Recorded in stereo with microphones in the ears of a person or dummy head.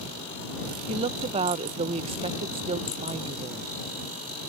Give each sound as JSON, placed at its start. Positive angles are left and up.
{"t": 0.9, "sound": "a woman speaking", "side_deg": -30}